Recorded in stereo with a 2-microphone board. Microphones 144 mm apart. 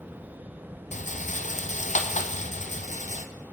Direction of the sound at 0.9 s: 60° left (ahead or behind).